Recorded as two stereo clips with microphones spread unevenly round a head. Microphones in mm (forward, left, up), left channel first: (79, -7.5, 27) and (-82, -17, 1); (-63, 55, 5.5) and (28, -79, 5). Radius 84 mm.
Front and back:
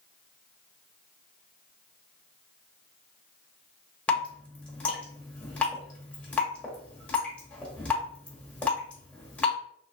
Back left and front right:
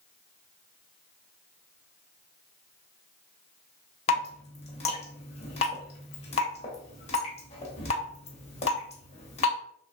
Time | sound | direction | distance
4.1 | dripping | 75° left | 0.9 m